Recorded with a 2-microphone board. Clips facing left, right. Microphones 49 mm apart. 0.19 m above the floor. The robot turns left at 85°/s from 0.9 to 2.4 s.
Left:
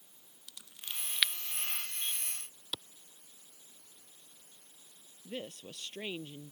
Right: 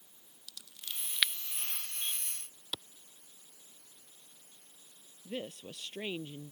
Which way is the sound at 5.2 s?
5° right (ahead or behind).